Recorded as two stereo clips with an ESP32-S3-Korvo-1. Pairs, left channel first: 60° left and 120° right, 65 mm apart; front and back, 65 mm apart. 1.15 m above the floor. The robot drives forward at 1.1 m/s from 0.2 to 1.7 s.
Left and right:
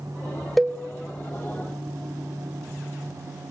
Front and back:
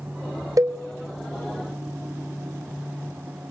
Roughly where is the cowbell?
Behind left.